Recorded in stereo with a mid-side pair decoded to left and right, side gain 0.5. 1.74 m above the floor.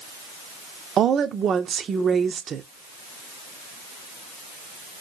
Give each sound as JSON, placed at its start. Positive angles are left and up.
{"t": 1.0, "sound": "a woman speaking", "azimuth_deg": -50, "distance_m": 0.5}